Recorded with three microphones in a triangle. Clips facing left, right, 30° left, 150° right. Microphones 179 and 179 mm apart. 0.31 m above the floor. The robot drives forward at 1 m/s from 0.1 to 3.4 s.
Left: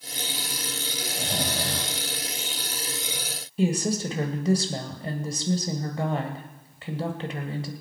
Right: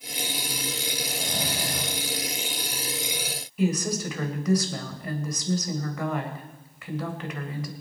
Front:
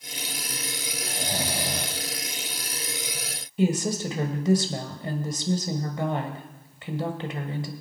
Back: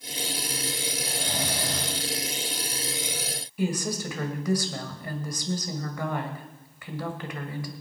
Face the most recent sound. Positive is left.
turn(degrees=65)